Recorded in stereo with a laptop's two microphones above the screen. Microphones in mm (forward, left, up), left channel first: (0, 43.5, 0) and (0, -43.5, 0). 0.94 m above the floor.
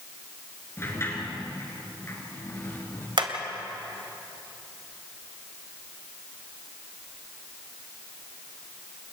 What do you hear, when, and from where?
0.8 s a sliding door: 30° left (ahead or behind), 5 m
3.2 s hammering: 70° right (ahead or behind), 1.9 m